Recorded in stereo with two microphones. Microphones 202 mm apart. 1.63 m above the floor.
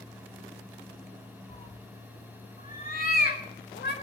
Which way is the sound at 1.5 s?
35° left (ahead or behind).